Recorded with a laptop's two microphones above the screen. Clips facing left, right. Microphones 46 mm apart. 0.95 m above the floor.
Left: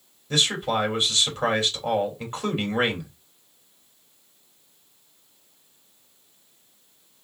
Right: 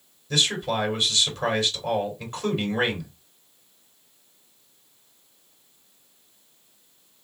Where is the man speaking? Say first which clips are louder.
Left 1 dB; 20° left (ahead or behind), 2.5 m.